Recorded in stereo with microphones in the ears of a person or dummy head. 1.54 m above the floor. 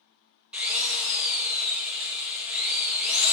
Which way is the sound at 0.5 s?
10° right (ahead or behind).